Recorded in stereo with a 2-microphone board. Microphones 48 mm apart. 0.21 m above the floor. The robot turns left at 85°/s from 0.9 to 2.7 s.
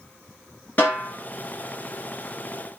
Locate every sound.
0.8 s a snare drum: 40° left (ahead or behind), 2.5 m; by 1.1 s 55° left (ahead or behind), 2.5 m